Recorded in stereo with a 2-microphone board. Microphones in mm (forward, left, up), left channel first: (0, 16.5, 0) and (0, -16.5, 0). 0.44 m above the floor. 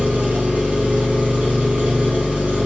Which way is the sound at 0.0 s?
50° right (ahead or behind).